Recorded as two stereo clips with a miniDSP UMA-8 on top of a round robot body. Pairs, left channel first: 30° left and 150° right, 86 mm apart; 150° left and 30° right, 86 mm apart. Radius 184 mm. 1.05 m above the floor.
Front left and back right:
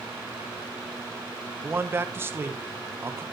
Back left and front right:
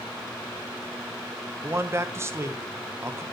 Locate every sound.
1.6 s a man speaking: 90° right, 1.3 m